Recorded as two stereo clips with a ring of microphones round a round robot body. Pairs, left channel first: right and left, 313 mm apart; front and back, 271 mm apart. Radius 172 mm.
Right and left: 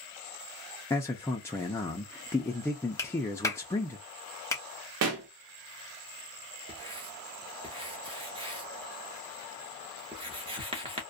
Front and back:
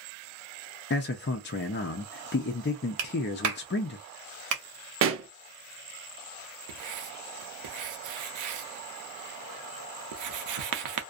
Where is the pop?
140° left, 0.6 m.